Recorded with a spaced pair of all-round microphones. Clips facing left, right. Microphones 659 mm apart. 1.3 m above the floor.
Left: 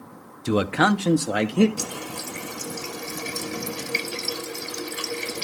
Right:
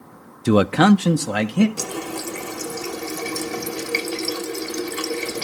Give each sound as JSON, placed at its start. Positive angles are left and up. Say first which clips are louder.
{"t": 0.5, "sound": "a man speaking", "louder": "right 7 dB", "side_deg": -75, "distance_m": 0.5}
{"t": 1.8, "sound": "a running tap", "louder": "right 5 dB", "side_deg": -70, "distance_m": 1.1}